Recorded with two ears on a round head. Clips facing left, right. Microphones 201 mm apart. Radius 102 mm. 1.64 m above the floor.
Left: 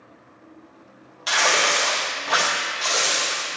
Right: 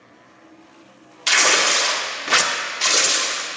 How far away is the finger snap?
I don't hear a finger snap.